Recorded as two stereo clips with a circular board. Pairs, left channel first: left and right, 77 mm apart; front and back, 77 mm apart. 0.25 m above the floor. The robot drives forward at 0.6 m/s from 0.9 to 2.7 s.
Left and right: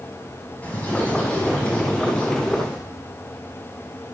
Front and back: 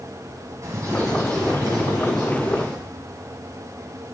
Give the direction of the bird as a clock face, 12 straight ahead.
7 o'clock.